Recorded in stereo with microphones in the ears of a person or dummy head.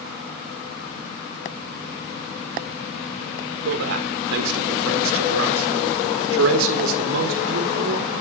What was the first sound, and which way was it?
A man speaking, 75° right (ahead or behind).